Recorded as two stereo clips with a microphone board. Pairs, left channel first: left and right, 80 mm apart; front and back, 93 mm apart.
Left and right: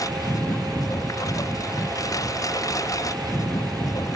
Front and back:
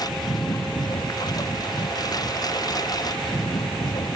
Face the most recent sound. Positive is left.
turn(degrees=45)